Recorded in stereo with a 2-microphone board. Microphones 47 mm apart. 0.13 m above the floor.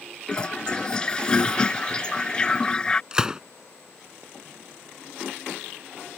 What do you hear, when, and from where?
0.3 s a toilet flushing: 20° left (ahead or behind)
3.1 s a gunshot: 15° right (ahead or behind)